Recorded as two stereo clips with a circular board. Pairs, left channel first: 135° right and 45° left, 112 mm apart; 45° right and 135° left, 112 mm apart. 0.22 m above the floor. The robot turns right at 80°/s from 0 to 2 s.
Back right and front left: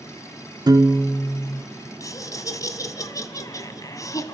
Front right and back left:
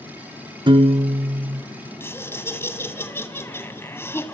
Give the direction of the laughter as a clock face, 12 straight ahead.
3 o'clock.